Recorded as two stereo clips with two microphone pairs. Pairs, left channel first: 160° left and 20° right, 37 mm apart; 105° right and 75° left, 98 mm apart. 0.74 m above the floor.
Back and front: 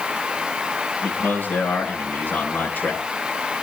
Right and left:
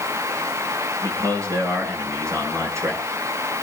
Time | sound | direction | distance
1.0 | a man speaking | 130° left | 8 m